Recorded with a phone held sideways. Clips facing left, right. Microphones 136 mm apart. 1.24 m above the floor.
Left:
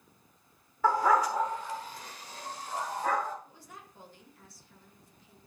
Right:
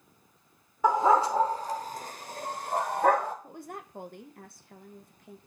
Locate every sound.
0.8 s a dog barking: 15° right (ahead or behind), 1.1 m; by 3.3 s 55° right (ahead or behind), 1.9 m
3.4 s a woman speaking: 55° right (ahead or behind), 0.8 m